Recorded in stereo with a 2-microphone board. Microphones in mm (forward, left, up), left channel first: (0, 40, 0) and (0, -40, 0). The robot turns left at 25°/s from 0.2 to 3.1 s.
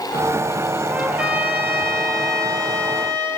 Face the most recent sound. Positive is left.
turn(degrees=-65)